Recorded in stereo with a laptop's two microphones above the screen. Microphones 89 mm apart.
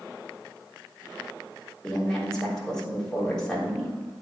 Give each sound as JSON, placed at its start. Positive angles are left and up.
{"t": 1.8, "sound": "a woman speaking", "side_deg": 5, "distance_m": 3.5}